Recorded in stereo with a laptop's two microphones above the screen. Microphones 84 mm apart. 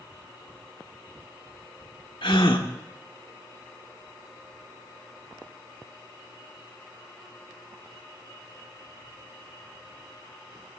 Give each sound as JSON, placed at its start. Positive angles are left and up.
{"t": 2.2, "sound": "a gasp", "side_deg": 85, "distance_m": 1.9}